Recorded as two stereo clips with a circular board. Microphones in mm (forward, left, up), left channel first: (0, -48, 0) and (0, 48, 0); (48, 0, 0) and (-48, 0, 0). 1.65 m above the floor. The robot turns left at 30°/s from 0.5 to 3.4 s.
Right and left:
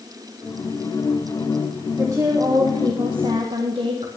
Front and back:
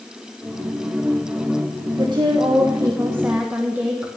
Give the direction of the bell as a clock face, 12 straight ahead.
I don't hear a bell.